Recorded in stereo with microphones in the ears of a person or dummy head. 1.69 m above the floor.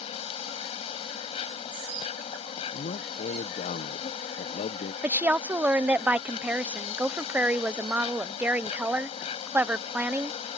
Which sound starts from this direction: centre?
A woman speaking, at 5.0 s.